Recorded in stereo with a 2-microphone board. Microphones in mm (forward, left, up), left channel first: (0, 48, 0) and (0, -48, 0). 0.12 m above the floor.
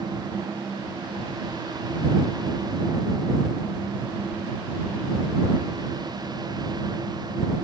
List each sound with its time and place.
Only background noise.